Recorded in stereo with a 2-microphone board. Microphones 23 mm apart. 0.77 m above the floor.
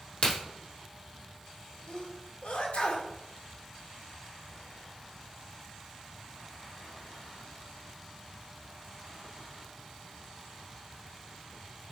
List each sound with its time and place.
0.2 s a crack: 65° left (ahead or behind), 2.5 m
1.9 s a sneeze: 75° left (ahead or behind), 1.8 m